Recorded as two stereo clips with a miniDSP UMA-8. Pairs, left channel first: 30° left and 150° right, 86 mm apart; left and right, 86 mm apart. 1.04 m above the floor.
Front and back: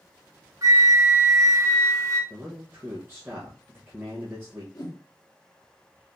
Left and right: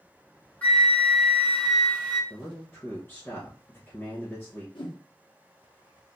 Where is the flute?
165° left, 1.1 m.